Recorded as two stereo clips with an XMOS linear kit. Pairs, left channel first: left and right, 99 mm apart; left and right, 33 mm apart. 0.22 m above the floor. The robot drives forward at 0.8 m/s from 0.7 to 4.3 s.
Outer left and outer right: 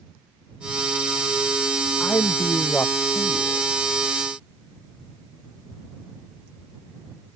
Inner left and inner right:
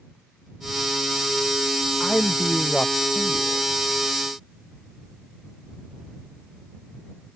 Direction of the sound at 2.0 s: 20° left (ahead or behind).